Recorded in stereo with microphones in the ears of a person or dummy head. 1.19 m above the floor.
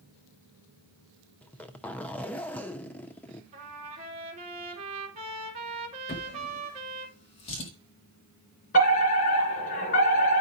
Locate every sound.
1.4 s a zipper: 10° left (ahead or behind), 0.5 m
3.5 s a trumpet: 35° right (ahead or behind), 2.5 m
6.1 s a drawer: 35° left (ahead or behind), 1.3 m
8.7 s a fire alarm: 45° left (ahead or behind), 3 m